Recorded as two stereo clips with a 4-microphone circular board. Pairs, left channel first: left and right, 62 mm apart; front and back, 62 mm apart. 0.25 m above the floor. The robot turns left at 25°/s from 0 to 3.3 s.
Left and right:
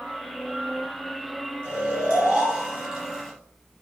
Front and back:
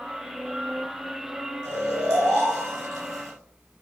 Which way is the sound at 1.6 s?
140° right.